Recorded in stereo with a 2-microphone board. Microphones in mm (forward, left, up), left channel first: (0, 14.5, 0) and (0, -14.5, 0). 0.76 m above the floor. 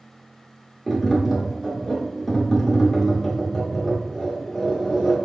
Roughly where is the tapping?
Centre.